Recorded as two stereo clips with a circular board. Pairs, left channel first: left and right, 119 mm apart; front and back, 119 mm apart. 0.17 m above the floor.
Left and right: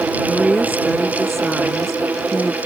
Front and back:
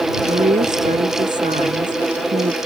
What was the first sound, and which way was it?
A woman speaking, straight behind.